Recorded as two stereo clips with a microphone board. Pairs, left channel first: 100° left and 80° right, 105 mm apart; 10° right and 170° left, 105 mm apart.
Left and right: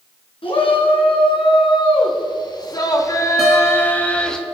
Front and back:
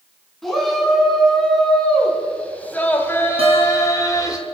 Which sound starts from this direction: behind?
A guitar, at 3.4 s.